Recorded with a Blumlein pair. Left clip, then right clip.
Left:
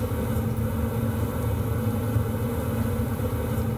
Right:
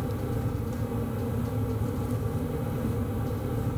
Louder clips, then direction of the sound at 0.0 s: Left 4 dB; 50° left.